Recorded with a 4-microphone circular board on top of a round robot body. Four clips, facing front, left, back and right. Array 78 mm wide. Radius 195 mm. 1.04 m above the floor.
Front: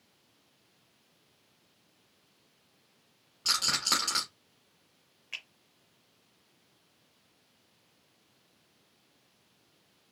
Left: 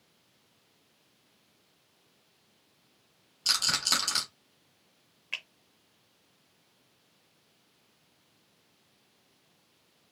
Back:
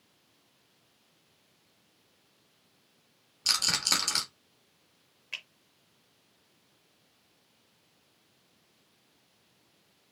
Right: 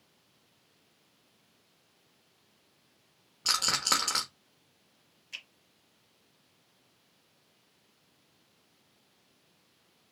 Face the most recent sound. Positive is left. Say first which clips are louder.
# left 7 dB, back 1 dB
turn(degrees=95)